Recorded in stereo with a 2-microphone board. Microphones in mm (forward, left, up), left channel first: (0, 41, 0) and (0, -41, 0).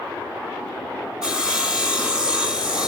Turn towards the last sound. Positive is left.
turn(degrees=-10)  # may be behind; listen again after turning